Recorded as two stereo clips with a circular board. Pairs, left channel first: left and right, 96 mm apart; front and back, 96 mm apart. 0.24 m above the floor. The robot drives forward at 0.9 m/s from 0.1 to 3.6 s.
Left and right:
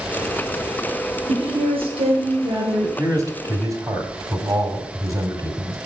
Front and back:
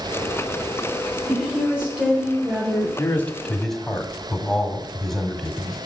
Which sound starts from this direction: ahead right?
A man speaking, at 3.0 s.